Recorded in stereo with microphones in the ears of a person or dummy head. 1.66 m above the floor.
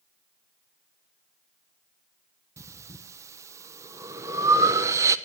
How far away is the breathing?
About 1.1 m.